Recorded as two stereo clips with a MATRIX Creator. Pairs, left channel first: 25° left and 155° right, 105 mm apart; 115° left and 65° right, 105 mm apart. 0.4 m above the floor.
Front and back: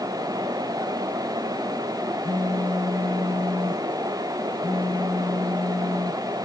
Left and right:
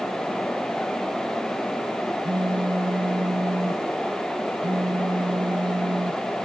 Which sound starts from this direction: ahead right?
A phone buzzing, at 2.2 s.